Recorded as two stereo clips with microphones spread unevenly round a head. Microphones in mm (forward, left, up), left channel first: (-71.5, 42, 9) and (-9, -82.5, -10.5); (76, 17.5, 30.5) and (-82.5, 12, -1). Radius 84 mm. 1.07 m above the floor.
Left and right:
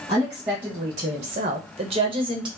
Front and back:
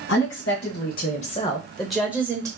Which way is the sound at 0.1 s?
5° left.